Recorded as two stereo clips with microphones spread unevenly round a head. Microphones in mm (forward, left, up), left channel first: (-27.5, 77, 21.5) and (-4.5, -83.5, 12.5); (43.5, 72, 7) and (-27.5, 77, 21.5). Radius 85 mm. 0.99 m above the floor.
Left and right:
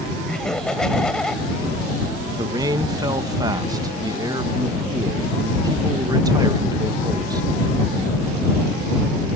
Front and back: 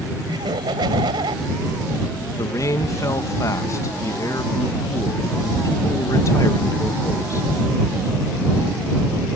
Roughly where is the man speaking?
Ahead.